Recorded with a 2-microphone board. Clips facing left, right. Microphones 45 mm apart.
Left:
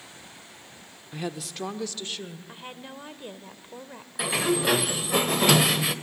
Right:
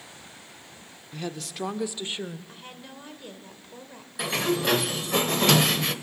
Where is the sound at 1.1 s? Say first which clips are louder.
Left 1 dB; 15° left (ahead or behind), 0.8 m; by 2.4 s 25° right (ahead or behind), 1.3 m.